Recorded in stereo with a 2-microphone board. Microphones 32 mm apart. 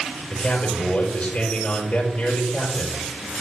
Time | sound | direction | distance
0.3 | a man speaking | 75° left (ahead or behind) | 3 m